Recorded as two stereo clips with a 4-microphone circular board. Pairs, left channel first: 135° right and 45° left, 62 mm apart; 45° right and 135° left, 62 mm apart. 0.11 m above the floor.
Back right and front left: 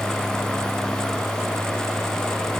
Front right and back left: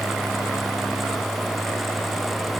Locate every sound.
Only background noise.